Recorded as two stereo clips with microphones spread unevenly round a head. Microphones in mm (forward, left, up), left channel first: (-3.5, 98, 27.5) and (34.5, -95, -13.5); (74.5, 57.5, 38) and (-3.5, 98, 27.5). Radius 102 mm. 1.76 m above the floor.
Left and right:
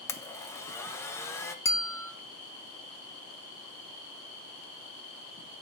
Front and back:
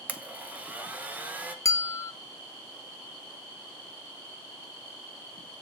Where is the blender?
85° left, 0.9 m.